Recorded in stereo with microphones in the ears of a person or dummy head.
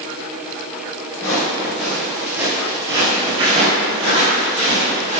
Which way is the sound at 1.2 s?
15° left (ahead or behind).